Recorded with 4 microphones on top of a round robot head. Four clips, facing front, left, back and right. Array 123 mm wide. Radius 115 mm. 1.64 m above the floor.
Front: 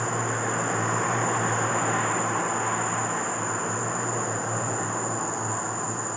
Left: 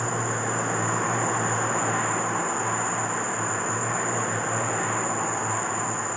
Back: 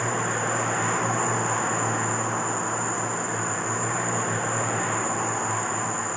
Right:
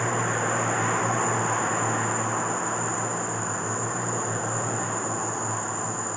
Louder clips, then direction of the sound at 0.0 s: Right 2 dB, back 1 dB; 170° left.